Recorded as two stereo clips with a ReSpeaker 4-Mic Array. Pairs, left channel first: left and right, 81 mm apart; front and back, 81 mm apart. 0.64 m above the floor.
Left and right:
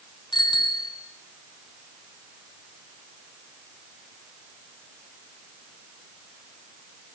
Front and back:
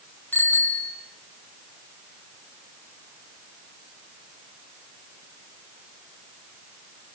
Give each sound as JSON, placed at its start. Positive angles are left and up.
{"t": 0.3, "sound": "a bicycle bell", "azimuth_deg": 65, "distance_m": 4.0}